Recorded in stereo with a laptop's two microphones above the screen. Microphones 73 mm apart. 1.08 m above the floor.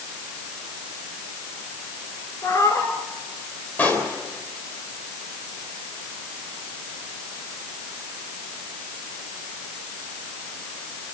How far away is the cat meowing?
About 2 m.